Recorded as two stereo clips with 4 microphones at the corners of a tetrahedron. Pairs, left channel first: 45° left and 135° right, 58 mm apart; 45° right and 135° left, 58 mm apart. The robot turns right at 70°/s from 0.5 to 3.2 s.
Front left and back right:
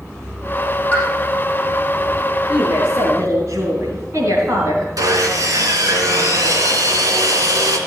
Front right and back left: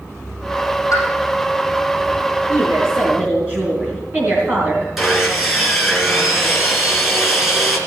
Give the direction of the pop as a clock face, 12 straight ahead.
1 o'clock.